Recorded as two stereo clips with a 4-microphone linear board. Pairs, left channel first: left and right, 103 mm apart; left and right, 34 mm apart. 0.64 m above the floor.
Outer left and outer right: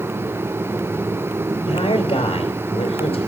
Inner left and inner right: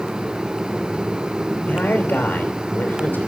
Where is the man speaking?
65° left (ahead or behind), 3.5 m.